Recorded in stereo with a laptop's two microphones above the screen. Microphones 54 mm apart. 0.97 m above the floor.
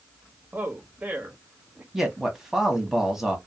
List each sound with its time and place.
0.5 s a man speaking: 30° right (ahead or behind), 1.3 m
1.9 s a man speaking: 5° right (ahead or behind), 1.2 m